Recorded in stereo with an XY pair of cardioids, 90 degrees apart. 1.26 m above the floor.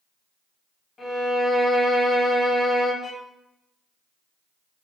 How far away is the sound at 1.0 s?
About 1.4 m.